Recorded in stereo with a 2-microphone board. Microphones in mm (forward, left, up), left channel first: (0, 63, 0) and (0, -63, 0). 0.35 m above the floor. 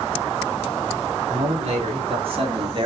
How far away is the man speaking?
About 4 m.